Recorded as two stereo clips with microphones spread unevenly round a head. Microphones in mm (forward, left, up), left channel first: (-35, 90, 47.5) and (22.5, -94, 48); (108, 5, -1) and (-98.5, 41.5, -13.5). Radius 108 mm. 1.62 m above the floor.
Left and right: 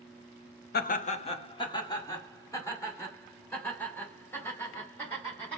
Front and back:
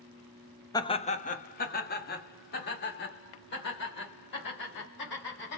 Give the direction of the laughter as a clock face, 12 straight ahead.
10 o'clock.